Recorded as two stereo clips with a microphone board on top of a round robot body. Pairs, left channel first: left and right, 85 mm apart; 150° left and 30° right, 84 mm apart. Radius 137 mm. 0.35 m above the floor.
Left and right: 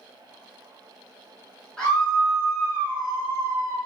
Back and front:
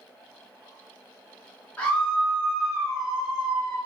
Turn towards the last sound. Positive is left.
turn(degrees=-90)